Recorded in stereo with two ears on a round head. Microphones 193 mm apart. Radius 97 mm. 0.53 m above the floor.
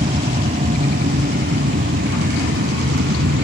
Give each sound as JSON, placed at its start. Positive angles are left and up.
{"t": 0.0, "sound": "an aircraft", "side_deg": -30}